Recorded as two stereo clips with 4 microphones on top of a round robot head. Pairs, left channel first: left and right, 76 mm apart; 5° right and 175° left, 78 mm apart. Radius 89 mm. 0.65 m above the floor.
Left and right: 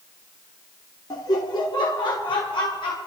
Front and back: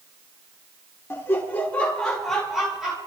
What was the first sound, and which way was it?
Laughter, 55° left.